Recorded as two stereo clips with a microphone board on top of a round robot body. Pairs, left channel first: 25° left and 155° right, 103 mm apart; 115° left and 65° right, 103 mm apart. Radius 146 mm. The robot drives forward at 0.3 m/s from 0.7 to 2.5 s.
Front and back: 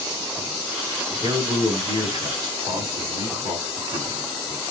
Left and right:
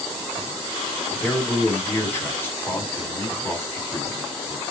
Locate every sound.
1.2 s a man speaking: 175° left, 2.0 m